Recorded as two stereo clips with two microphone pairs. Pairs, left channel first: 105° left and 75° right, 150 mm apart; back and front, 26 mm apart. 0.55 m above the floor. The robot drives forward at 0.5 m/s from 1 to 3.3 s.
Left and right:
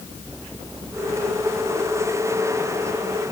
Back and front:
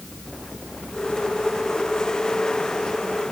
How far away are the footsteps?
No footsteps in this recording.